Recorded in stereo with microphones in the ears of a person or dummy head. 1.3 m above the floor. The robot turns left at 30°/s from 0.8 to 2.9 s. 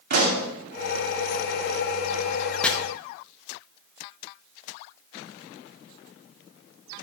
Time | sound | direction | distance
0.1 | a pop | 50° right (ahead or behind) | 2.5 m
2.6 | chopping | 5° left (ahead or behind) | 1.0 m